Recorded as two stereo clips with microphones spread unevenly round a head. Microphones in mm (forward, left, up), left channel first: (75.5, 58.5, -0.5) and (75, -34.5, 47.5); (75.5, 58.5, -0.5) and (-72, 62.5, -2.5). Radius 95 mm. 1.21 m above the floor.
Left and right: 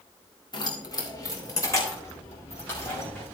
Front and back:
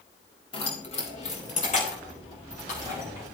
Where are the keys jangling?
50° left, 2 m; by 3.2 s 25° left, 6 m.